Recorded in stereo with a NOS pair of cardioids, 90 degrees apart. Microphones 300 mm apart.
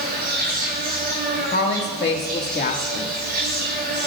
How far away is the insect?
About 6 m.